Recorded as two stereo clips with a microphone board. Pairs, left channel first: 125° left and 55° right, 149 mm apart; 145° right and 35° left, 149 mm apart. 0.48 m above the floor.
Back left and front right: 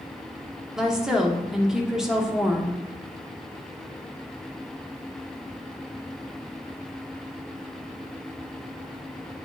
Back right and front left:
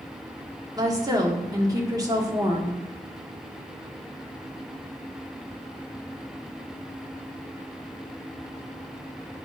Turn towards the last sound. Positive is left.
turn(degrees=25)